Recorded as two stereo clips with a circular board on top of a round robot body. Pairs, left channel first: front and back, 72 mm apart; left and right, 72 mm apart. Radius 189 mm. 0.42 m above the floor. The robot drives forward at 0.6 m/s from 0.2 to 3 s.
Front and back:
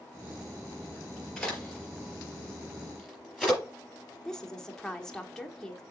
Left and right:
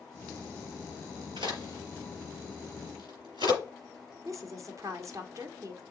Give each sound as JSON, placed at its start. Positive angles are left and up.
{"t": 1.4, "sound": "a crack", "azimuth_deg": -90, "distance_m": 5.0}
{"t": 4.2, "sound": "a woman speaking", "azimuth_deg": -80, "distance_m": 1.6}